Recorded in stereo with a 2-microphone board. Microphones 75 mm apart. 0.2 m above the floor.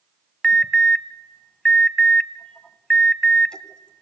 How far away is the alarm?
About 1.1 m.